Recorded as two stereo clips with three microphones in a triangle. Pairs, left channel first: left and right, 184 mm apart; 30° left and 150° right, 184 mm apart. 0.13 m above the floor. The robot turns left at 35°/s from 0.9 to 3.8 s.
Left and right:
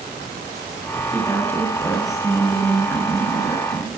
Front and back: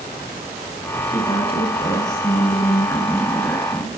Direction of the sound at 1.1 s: 35° left.